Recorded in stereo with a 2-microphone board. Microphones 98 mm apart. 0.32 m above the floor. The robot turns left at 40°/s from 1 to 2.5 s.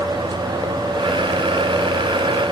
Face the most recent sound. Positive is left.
No sound to turn to.